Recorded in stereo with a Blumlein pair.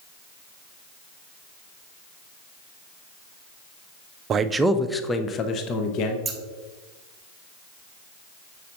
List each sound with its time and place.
4.3 s a man speaking: 25° right, 0.6 m; by 6.2 s 40° left, 1.1 m
6.2 s scissors: 15° right, 1.1 m